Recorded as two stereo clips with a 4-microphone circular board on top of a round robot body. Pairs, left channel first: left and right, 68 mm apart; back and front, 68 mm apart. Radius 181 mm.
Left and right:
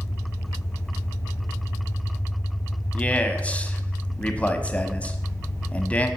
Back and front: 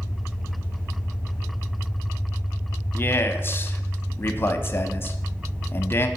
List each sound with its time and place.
0.0 s an engine running: 65° left, 3 m
2.9 s a man speaking: 150° left, 0.9 m